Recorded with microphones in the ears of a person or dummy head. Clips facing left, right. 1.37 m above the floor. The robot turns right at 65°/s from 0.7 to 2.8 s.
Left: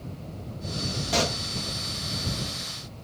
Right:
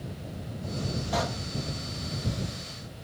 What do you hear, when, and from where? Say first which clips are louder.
1.1 s a pop: left 4 dB; 35° left (ahead or behind); by 1.4 s 55° left (ahead or behind)